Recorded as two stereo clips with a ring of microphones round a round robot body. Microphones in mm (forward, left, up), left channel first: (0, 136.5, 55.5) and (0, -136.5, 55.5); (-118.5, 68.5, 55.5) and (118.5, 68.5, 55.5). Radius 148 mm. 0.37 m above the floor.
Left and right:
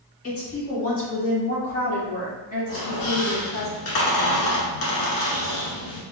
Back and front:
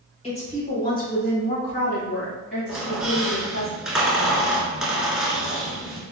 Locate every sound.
0.2 s a woman speaking: 120° left, 1.7 m; by 3.7 s 160° left, 3 m
2.7 s a squeak: 90° left, 1.1 m